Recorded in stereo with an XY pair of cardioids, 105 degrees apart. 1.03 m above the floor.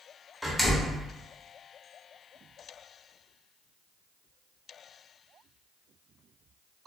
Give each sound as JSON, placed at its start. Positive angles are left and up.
{"t": 0.4, "sound": "a door slam", "azimuth_deg": 5, "distance_m": 0.8}